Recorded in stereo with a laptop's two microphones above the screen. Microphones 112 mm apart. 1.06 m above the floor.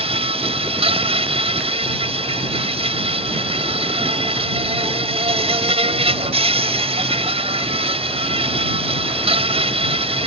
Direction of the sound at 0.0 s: 65° right (ahead or behind).